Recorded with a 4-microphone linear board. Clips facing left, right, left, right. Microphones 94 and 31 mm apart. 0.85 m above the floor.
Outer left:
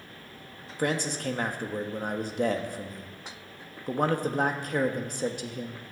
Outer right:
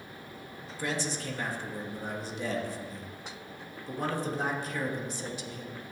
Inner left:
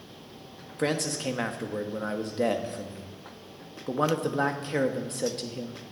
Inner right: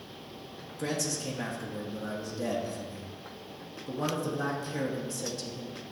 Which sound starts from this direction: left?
A man speaking, at 0.8 s.